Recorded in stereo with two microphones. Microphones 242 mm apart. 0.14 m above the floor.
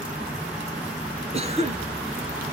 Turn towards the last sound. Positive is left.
turn(degrees=-25)  # may be behind; listen again after turning